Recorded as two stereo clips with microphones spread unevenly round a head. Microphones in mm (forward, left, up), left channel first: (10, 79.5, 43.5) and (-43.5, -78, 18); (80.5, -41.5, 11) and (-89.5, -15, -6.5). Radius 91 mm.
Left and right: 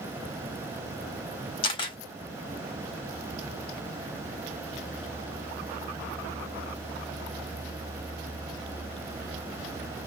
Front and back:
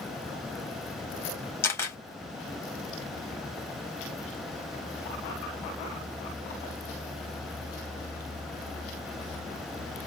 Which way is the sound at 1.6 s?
45° left.